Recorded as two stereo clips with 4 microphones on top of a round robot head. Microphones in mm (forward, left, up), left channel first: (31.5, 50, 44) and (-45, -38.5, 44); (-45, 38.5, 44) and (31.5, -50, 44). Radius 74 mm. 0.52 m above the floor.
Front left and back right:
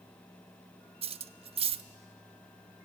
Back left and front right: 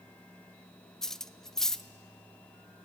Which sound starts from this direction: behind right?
Cutlery clinking, at 1.0 s.